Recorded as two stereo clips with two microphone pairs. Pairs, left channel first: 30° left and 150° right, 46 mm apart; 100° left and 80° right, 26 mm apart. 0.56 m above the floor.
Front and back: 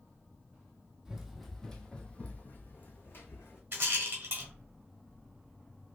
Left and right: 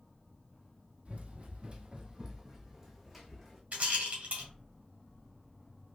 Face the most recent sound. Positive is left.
turn(degrees=-110)